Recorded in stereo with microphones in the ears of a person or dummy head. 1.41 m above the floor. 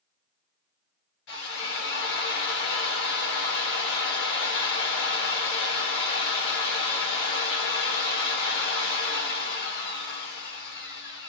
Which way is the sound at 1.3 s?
70° left (ahead or behind).